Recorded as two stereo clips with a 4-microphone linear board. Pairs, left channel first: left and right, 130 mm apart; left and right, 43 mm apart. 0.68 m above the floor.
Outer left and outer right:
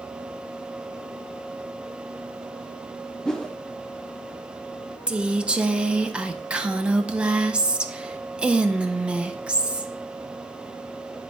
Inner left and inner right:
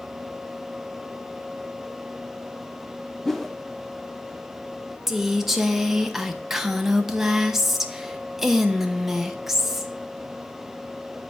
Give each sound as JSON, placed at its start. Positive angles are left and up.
{"t": 3.2, "sound": "a whoosh", "side_deg": 5, "distance_m": 0.5}
{"t": 5.1, "sound": "a woman speaking", "side_deg": -5, "distance_m": 0.6}